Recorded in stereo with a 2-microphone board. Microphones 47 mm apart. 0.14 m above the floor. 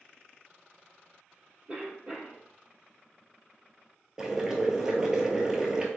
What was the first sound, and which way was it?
A cough, 15° right (ahead or behind).